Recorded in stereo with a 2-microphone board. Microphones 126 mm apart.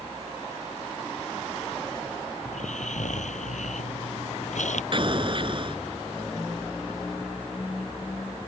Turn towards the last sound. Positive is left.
turn(degrees=-45)  # may be behind; listen again after turning